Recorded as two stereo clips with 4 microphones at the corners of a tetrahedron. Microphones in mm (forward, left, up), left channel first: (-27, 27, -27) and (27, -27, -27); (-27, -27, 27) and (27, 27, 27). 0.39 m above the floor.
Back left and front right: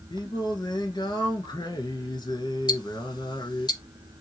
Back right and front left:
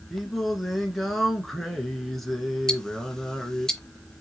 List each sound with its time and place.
0.1 s singing: 140° left, 0.9 m
2.7 s ticking: 145° left, 0.6 m